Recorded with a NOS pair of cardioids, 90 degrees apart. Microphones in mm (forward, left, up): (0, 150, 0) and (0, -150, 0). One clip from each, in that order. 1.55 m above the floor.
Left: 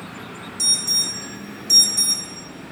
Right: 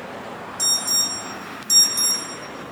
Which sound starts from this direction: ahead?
An alarm, at 0.6 s.